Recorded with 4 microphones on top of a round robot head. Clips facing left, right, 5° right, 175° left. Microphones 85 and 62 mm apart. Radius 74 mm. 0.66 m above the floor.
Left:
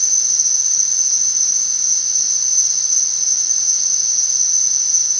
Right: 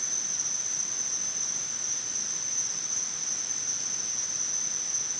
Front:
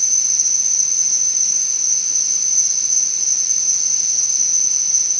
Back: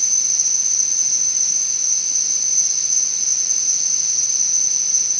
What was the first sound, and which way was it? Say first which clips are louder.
An insect: left 2 dB, even; 80° left.